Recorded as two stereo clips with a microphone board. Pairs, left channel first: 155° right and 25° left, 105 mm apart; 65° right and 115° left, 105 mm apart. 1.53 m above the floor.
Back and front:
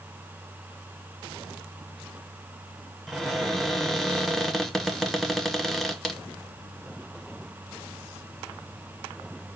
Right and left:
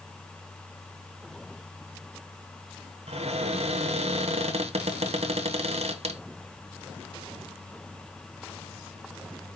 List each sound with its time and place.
3.1 s a cupboard door: 115° left, 0.8 m